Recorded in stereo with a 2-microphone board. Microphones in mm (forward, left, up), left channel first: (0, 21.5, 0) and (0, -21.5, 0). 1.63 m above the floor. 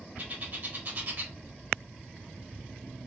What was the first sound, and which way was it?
A bird, 45° right (ahead or behind).